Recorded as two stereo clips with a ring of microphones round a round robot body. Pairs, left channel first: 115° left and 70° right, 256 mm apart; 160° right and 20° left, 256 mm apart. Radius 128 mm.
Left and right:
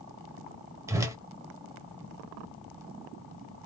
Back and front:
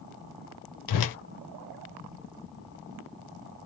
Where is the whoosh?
145° right, 0.6 m.